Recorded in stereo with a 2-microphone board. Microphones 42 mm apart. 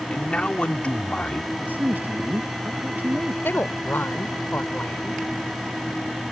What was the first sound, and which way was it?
A man speaking, 30° left (ahead or behind).